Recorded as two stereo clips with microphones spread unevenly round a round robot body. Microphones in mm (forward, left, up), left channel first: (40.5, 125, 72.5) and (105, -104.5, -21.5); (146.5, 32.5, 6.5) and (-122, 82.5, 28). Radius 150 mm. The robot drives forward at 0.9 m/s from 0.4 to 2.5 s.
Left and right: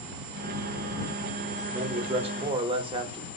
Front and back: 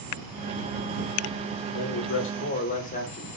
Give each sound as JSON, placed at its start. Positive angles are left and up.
{"t": 1.7, "sound": "a man speaking", "azimuth_deg": -20, "distance_m": 1.1}